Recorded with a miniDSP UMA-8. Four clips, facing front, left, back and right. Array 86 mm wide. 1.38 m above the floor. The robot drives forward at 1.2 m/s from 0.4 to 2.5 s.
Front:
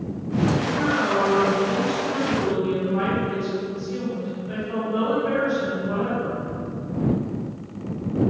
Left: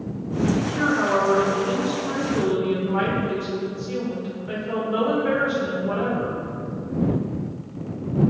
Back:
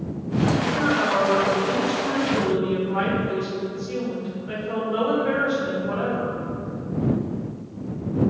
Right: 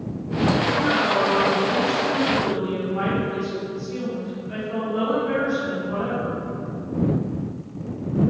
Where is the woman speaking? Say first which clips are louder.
Right 1 dB, back 1 dB; 100° left, 4.5 m; by 6.4 s 125° left, 5.5 m.